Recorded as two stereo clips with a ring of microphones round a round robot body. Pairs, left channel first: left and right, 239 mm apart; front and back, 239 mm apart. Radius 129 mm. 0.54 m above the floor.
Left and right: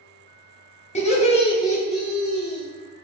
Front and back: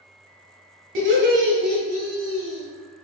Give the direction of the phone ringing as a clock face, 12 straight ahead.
No phone ringing in this recording.